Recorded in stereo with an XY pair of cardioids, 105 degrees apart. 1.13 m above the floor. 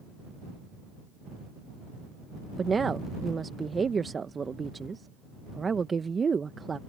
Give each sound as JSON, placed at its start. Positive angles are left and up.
{"t": 2.6, "sound": "a woman speaking", "azimuth_deg": -35}